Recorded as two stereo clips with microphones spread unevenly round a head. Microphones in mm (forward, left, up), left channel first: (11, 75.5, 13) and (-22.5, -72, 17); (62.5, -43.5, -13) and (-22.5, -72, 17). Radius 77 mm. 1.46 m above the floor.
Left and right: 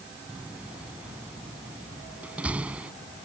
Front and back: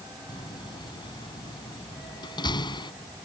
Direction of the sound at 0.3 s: 20° right.